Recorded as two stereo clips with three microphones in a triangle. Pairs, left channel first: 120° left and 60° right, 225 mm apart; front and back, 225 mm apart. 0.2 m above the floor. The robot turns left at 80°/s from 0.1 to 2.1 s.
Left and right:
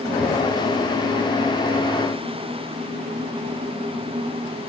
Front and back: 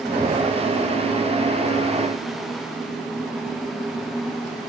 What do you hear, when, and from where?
Only background noise.